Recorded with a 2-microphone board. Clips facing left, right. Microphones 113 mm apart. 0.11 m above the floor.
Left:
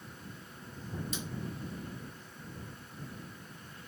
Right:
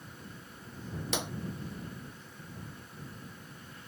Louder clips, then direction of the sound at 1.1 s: Right 6 dB; 70° right (ahead or behind).